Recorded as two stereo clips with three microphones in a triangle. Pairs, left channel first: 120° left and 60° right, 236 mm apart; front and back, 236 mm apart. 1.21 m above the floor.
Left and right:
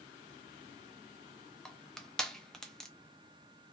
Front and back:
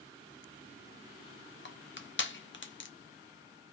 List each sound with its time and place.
1.6 s crushing: 35° left, 0.5 m